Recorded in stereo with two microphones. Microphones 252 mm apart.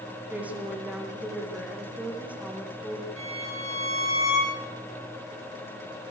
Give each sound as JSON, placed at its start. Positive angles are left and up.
{"t": 0.3, "sound": "a woman speaking", "side_deg": -5, "distance_m": 7.0}
{"t": 3.2, "sound": "a violin", "side_deg": 55, "distance_m": 8.0}